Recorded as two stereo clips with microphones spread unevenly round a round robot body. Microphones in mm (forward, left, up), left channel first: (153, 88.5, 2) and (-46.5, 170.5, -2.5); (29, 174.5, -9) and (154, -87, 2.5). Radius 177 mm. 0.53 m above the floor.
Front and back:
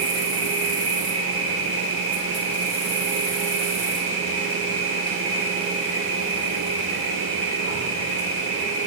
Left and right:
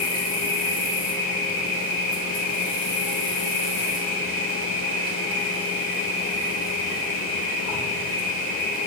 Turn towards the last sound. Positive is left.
turn(degrees=-135)